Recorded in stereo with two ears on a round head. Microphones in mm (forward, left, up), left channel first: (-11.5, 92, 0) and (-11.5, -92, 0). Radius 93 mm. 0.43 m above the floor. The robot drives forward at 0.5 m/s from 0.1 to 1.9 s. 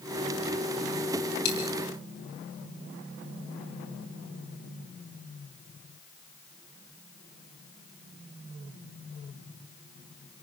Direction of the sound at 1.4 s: 60° left (ahead or behind).